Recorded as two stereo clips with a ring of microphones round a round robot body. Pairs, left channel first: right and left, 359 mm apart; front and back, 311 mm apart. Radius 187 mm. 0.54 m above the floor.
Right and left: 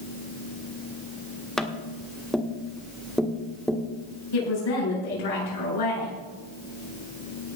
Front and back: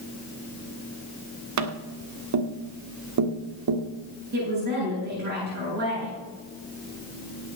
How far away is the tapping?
About 1.5 m.